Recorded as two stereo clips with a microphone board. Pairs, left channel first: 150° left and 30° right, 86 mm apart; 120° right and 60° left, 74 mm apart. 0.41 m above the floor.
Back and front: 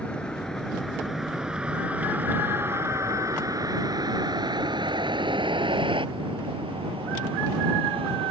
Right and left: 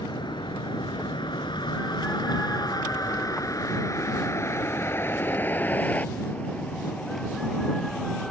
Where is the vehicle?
130° right; by 8.3 s 40° right.